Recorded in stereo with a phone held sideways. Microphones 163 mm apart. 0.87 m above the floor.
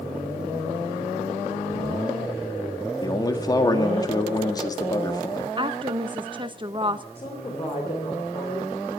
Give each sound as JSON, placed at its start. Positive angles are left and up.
{"t": 3.0, "sound": "a man speaking", "side_deg": 25, "distance_m": 1.8}
{"t": 5.6, "sound": "a woman speaking", "side_deg": -30, "distance_m": 0.9}
{"t": 7.2, "sound": "a woman speaking", "side_deg": 35, "distance_m": 3.5}